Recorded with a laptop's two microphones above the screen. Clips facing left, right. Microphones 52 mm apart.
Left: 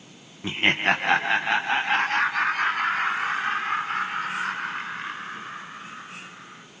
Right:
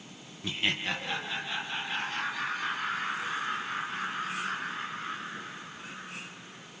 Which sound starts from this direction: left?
Laughter, at 0.4 s.